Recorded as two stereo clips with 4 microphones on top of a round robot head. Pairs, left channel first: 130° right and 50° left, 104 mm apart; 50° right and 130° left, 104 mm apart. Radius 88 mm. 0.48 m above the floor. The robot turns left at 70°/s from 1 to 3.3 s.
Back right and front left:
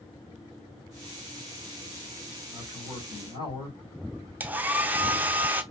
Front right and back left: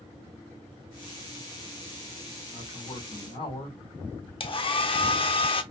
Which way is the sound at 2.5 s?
30° right.